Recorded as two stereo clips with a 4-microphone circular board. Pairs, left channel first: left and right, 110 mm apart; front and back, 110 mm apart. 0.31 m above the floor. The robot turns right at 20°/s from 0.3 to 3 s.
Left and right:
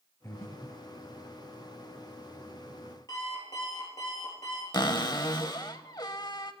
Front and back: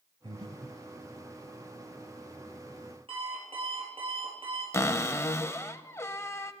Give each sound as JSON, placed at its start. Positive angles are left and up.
{"t": 0.2, "sound": "breathing", "azimuth_deg": 150, "distance_m": 0.6}
{"t": 3.1, "sound": "an alarm clock", "azimuth_deg": 145, "distance_m": 4.5}
{"t": 4.7, "sound": "a cupboard door", "azimuth_deg": 55, "distance_m": 0.6}